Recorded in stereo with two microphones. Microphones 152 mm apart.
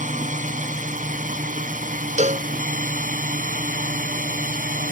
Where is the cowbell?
50° right (ahead or behind).